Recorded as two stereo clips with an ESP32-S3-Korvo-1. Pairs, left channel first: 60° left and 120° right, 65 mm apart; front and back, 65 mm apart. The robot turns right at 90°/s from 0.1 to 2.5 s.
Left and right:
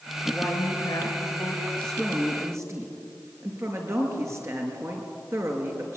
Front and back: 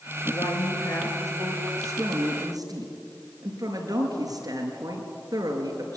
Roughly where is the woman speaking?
Ahead.